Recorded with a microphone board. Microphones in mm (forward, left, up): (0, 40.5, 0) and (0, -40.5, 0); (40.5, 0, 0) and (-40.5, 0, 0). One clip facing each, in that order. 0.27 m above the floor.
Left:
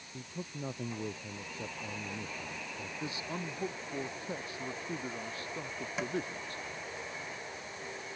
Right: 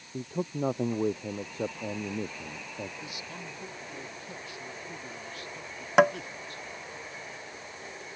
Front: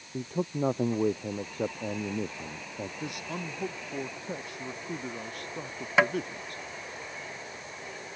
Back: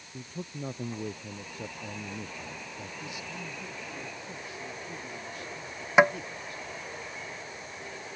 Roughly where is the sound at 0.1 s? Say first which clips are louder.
Right 11 dB, front 9 dB; ahead right.